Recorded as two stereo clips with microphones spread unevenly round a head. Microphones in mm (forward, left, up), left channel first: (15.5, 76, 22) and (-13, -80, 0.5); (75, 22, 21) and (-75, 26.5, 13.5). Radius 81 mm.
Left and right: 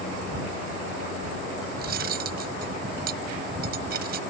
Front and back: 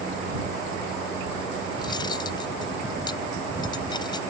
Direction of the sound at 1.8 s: 65° right.